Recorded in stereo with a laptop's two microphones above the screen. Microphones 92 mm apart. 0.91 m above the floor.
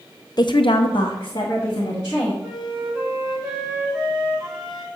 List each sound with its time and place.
0.4 s a woman speaking: 50° left (ahead or behind), 0.7 m; by 2.3 s 45° left (ahead or behind), 2 m
2.4 s a flute: 5° right (ahead or behind), 1.7 m